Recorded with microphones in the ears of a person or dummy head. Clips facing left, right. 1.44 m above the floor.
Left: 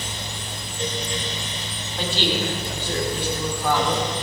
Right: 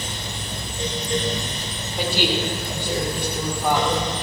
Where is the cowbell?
I don't hear a cowbell.